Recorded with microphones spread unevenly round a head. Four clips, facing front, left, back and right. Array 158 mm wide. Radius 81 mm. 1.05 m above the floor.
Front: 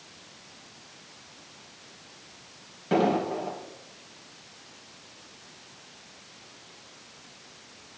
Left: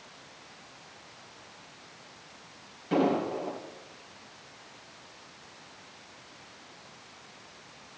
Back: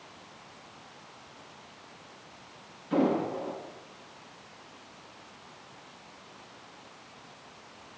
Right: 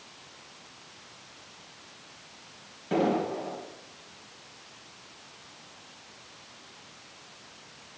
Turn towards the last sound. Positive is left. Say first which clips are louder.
# even, front 2 dB
turn(degrees=-10)